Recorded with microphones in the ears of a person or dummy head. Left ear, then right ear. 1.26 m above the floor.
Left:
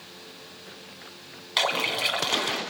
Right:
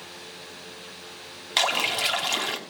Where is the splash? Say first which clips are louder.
Right 1 dB; 5° right (ahead or behind), 2.5 m.